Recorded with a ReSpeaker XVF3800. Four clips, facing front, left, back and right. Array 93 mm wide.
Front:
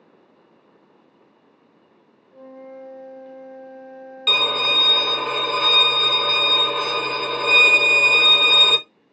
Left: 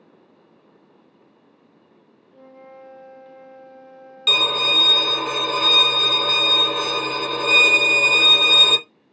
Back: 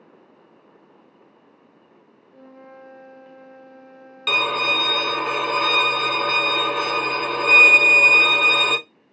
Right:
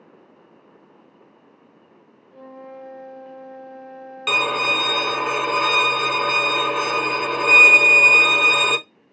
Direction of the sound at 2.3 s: 80° right.